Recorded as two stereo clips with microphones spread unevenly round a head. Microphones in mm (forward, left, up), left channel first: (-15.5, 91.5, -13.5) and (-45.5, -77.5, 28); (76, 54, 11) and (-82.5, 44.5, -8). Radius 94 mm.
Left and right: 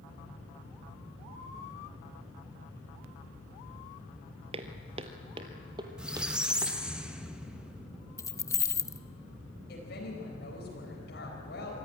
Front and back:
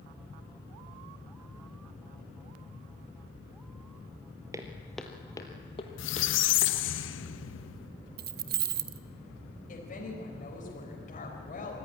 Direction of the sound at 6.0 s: 10° right.